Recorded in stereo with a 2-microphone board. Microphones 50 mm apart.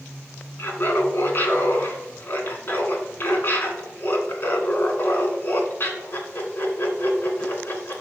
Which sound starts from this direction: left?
Laughter, at 0.6 s.